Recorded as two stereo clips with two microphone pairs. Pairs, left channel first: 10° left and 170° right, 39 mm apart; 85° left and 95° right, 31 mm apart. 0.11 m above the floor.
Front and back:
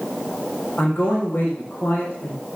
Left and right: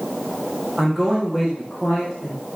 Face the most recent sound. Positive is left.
turn(degrees=-5)